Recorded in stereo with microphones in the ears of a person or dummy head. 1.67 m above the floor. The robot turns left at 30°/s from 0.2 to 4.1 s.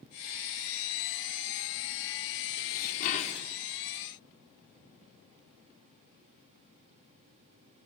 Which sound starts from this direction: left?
Dishes clattering, at 2.6 s.